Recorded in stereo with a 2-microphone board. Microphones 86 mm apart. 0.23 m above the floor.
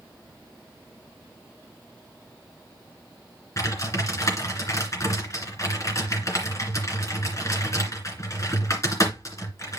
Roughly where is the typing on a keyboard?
Left.